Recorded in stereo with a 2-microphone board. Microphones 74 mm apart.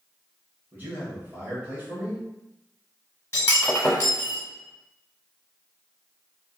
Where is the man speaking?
25° right (ahead or behind), 1.0 m.